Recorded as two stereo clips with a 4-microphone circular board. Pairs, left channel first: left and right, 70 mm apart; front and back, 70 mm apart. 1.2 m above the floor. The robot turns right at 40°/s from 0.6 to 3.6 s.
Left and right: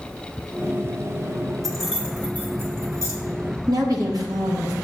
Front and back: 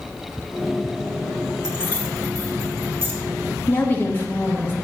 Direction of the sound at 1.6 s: 175° left.